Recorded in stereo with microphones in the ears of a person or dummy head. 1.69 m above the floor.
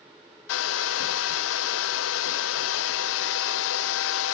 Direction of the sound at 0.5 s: 75° left (ahead or behind).